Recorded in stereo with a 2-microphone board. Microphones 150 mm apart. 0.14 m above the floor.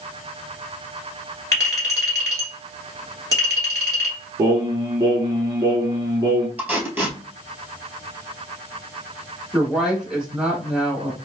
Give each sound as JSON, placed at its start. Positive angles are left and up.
{"t": 1.5, "sound": "a clink", "side_deg": 25, "distance_m": 1.6}
{"t": 4.4, "sound": "singing", "side_deg": -25, "distance_m": 0.7}
{"t": 6.6, "sound": "tape being pulled", "side_deg": -10, "distance_m": 1.8}
{"t": 9.5, "sound": "a woman speaking", "side_deg": -5, "distance_m": 1.3}